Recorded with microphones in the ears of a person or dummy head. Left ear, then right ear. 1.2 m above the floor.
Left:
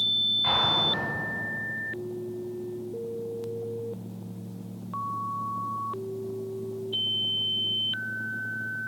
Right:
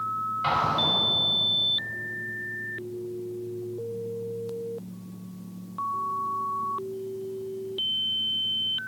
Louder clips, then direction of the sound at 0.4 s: Right 4 dB; 30° right (ahead or behind).